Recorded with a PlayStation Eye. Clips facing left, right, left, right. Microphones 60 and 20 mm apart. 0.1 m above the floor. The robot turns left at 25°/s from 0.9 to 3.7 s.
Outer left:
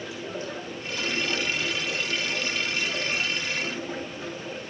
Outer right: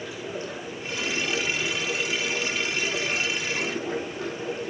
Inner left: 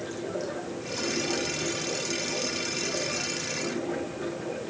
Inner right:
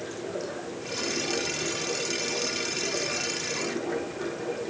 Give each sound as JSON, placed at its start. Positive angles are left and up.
{"t": 0.0, "sound": "running water", "azimuth_deg": 0, "distance_m": 5.0}